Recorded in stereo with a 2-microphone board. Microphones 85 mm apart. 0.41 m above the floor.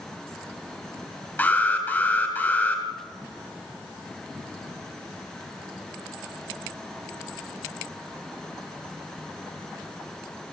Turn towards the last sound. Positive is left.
turn(degrees=25)  # may be behind; listen again after turning